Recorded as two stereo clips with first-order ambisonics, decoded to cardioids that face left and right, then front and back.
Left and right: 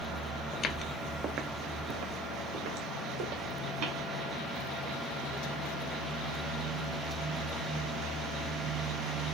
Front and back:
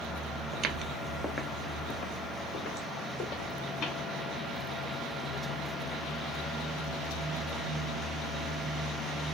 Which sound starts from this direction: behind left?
Footsteps, at 0.5 s.